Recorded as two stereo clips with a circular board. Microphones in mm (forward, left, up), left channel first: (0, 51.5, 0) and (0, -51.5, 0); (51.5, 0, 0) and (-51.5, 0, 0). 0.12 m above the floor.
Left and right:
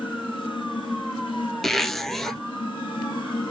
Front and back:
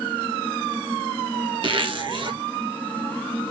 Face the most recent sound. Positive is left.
turn(degrees=180)